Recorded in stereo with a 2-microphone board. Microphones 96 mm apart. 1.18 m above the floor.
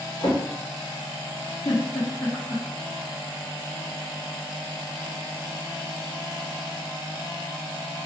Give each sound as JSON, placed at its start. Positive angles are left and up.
{"t": 0.2, "sound": "a drawer", "side_deg": 70, "distance_m": 1.9}
{"t": 1.6, "sound": "a giggle", "side_deg": 70, "distance_m": 1.3}